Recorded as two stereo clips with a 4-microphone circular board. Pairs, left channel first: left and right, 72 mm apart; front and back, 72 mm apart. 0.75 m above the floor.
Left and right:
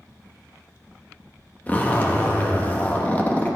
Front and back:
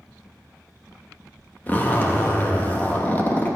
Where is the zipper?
45° left, 1.1 m.